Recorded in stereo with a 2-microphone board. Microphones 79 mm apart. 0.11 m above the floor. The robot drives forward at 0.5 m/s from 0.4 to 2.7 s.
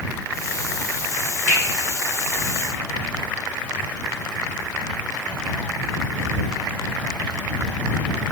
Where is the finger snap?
20° left (ahead or behind), 1.9 m.